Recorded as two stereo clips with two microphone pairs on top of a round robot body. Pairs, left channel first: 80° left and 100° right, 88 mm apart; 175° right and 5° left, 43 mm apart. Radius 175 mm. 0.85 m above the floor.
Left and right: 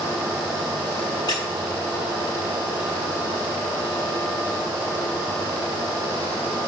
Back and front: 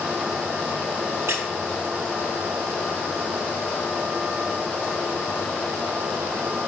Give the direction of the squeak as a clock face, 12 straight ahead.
11 o'clock.